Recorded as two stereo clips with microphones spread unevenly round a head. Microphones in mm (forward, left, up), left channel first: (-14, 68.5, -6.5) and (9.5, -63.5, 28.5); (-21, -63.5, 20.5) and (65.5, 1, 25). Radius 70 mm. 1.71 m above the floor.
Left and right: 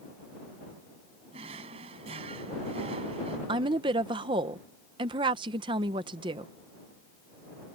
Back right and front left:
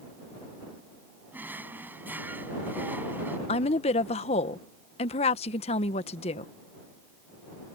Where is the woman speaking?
120° right.